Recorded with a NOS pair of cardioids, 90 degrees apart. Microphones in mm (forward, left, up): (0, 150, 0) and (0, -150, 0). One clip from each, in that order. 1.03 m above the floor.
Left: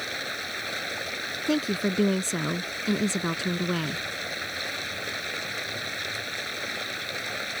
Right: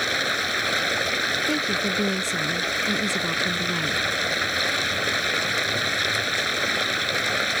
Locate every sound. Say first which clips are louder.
0.0 s running water: right 9 dB; 55° right
1.5 s a woman speaking: right 4 dB; 25° left